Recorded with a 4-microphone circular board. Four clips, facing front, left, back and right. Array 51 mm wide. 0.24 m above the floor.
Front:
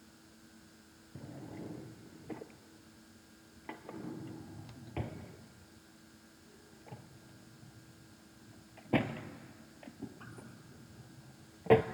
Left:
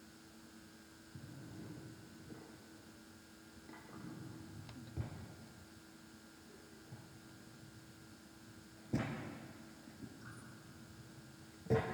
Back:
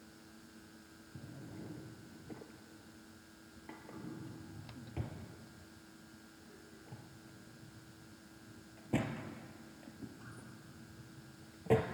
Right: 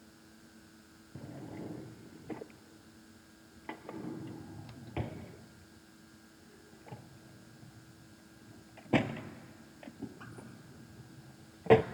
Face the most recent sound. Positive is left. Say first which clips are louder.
# right 9 dB, front 4 dB
turn(degrees=-60)